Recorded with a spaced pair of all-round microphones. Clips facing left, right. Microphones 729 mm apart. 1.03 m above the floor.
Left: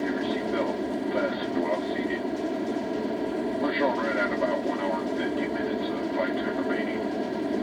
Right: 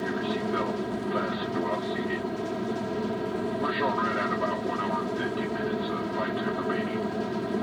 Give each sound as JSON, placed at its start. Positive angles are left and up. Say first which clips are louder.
{"t": 0.0, "sound": "an aircraft", "louder": "left 2 dB", "side_deg": -45}